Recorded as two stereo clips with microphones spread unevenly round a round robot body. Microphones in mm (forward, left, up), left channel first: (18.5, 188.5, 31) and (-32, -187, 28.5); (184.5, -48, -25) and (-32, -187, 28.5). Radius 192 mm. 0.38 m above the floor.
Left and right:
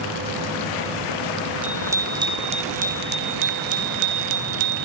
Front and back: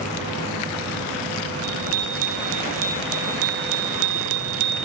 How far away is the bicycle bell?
About 2.5 m.